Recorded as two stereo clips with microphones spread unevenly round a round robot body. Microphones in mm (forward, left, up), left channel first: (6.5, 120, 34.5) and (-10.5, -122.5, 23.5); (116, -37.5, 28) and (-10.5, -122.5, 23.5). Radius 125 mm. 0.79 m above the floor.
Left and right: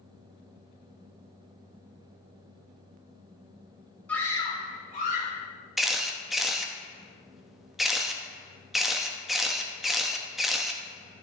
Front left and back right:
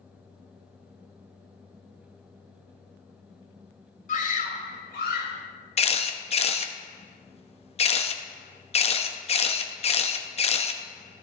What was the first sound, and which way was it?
A scream, straight ahead.